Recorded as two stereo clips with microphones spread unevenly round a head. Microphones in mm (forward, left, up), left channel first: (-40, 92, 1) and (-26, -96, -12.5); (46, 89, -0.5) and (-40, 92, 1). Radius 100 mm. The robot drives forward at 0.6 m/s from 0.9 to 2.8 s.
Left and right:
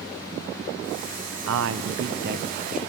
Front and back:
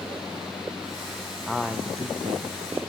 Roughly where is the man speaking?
Right.